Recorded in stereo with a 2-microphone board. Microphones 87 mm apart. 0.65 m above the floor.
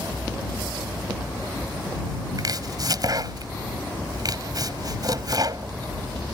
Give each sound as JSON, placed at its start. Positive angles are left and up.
{"t": 2.4, "sound": "chopping", "side_deg": -50}